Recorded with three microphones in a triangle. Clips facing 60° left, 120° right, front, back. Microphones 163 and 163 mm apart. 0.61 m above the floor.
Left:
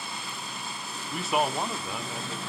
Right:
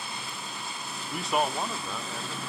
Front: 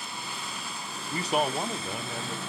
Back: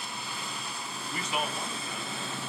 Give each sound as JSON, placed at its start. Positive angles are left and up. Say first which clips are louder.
{"t": 1.1, "sound": "a man speaking", "louder": "left 1 dB, front 7 dB", "azimuth_deg": -35, "distance_m": 0.6}